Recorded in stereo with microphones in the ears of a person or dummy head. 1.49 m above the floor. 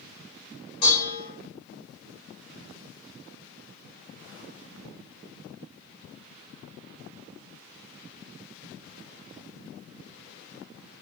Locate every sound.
0.8 s dishes clattering: 30° left (ahead or behind), 1.0 m